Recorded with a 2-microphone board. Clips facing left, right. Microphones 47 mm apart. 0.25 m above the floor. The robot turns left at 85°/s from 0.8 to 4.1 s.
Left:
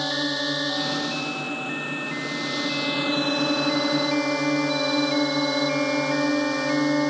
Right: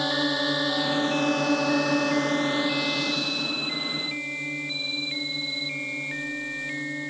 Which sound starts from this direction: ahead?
A drone, at 0.0 s.